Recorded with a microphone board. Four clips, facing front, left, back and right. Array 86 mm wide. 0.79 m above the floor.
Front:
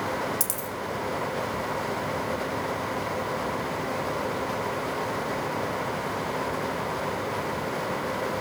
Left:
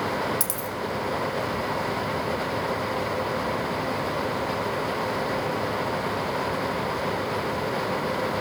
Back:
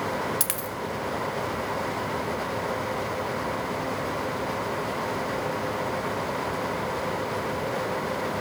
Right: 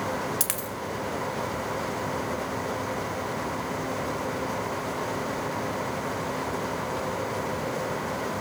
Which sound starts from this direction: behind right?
A dropped coin, at 0.4 s.